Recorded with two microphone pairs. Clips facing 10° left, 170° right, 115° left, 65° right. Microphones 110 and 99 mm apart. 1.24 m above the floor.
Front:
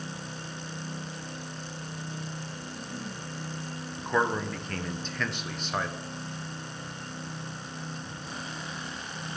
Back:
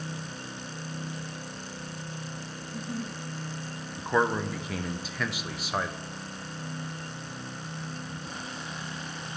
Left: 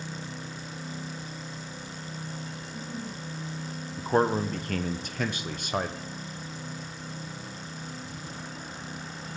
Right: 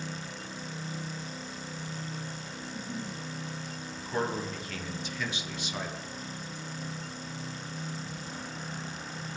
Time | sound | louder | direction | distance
2.6 | a giggle | back 3 dB, right 3 dB | 165° right | 4 m
4.0 | a man speaking | back 1 dB, left 8 dB | 105° left | 0.5 m